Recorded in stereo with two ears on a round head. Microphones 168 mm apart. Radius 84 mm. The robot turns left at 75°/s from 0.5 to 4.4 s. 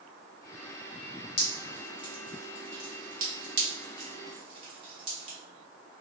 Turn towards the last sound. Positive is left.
turn(degrees=-30)  # may be behind; listen again after turning